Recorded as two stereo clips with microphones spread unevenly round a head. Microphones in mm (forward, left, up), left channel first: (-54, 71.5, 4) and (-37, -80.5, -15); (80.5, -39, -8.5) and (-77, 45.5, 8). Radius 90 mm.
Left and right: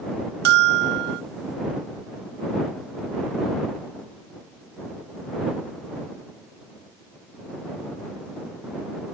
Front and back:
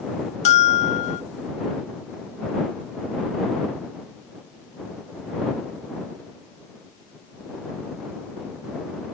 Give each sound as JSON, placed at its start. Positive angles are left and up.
{"t": 0.5, "sound": "a bell", "azimuth_deg": -80}